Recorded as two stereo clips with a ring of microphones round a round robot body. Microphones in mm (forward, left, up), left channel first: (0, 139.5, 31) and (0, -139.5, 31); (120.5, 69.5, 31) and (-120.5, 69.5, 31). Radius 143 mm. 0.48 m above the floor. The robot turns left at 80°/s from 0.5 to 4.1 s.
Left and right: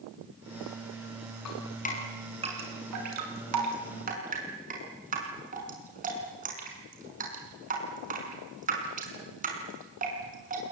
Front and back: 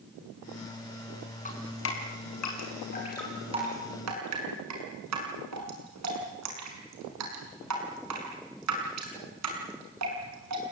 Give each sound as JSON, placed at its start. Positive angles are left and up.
{"t": 1.4, "sound": "dripping", "azimuth_deg": 60, "distance_m": 6.0}